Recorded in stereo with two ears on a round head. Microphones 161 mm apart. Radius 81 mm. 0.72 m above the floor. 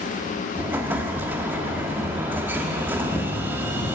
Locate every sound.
0.6 s an explosion: 10° right (ahead or behind), 0.8 m